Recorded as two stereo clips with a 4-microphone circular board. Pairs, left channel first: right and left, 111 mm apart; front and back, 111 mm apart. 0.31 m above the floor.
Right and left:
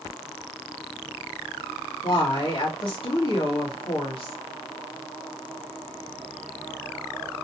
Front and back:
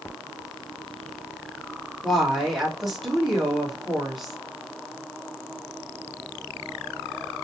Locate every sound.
2.0 s a woman speaking: 90° right, 1.9 m